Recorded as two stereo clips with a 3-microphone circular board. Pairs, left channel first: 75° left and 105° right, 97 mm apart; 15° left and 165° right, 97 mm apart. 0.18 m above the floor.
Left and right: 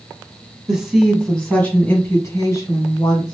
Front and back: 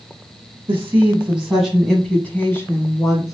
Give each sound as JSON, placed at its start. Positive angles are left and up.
{"t": 0.7, "sound": "a woman speaking", "azimuth_deg": 180, "distance_m": 1.2}